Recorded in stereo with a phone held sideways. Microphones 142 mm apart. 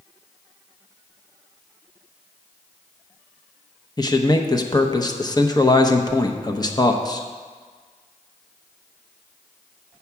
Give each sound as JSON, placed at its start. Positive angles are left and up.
{"t": 4.0, "sound": "a man speaking", "side_deg": 30, "distance_m": 0.8}